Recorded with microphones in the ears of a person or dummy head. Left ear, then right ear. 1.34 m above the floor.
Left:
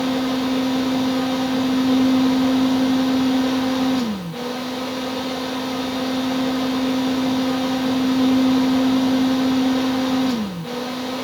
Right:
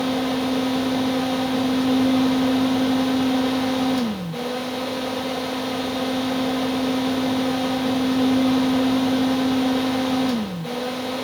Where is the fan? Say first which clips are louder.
Left 1 dB; 10° right (ahead or behind), 1.1 m.